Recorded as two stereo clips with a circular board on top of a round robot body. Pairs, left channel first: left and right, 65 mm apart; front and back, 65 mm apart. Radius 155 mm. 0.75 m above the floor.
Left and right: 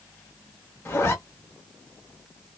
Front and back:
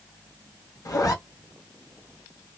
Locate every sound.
0.8 s a zipper: 30° left, 1.2 m